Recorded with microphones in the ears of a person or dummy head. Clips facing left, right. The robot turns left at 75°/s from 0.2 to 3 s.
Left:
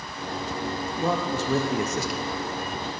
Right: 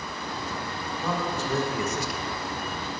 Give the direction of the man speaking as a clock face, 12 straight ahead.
7 o'clock.